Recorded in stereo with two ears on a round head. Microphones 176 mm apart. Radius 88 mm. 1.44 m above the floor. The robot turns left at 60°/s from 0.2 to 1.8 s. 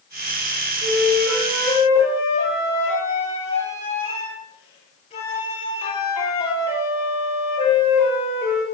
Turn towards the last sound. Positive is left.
turn(degrees=145)